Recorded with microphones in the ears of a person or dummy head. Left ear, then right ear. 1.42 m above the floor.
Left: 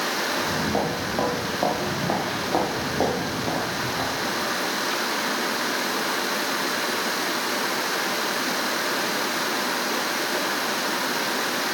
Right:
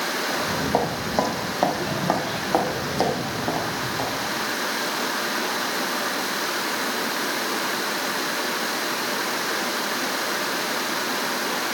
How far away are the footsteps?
About 4 m.